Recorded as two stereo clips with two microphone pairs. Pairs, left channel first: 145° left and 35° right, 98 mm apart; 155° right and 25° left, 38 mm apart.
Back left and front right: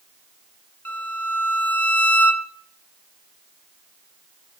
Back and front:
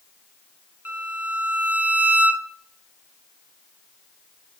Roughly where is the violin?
Ahead left.